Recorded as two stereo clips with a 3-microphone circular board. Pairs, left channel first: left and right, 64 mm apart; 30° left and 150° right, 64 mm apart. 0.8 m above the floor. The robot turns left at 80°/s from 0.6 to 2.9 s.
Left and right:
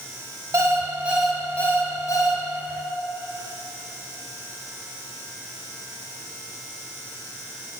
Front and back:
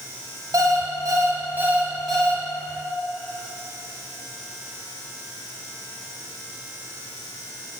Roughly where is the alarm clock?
Behind right.